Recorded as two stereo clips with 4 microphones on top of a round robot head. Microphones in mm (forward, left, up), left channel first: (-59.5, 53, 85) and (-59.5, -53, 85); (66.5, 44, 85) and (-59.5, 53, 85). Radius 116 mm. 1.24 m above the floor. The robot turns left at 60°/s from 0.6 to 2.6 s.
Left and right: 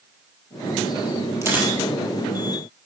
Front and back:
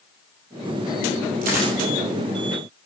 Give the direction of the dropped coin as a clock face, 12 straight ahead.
5 o'clock.